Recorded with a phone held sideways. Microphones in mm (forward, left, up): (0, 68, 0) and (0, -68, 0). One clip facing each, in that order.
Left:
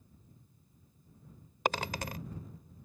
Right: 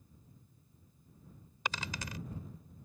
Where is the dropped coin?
55° left (ahead or behind).